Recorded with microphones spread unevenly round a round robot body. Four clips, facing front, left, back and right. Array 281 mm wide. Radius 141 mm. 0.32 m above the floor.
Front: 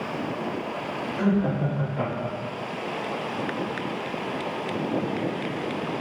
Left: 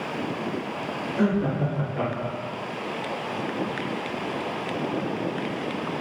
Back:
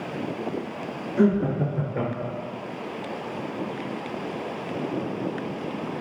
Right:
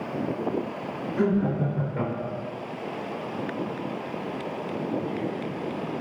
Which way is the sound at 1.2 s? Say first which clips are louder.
Even, back 3 dB; 160° right.